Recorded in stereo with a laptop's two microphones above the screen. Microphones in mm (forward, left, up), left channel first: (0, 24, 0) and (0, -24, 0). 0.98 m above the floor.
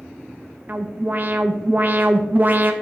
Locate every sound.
0.7 s an alarm: 40° right (ahead or behind), 0.6 m